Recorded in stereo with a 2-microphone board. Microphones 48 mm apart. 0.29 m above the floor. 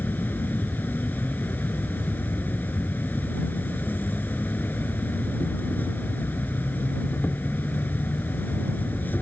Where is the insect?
45° left (ahead or behind).